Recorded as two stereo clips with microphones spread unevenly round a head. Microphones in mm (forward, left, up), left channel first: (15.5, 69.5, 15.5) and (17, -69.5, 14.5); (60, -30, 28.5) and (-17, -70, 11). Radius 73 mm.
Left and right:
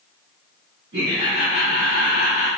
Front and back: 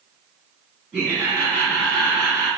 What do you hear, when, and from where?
0.9 s laughter: 80° right, 1.8 m